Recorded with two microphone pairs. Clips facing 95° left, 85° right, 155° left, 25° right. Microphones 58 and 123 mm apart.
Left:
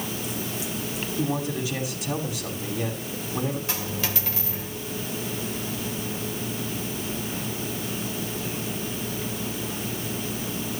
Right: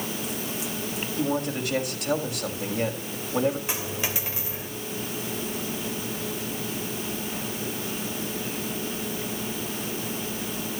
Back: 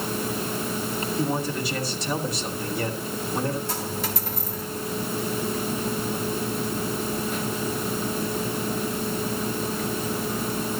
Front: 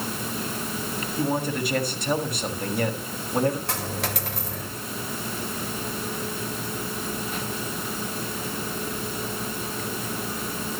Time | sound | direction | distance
1.2 | a man speaking | 60° right | 6.5 m
3.7 | a dropped coin | 15° right | 2.5 m